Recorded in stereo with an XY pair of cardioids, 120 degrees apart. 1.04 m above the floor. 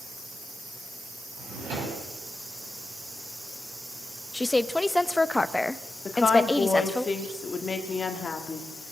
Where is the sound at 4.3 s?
15° left, 0.7 m.